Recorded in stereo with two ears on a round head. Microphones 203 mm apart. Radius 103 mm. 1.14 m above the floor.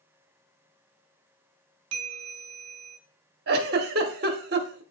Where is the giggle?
45° right (ahead or behind), 1.0 m.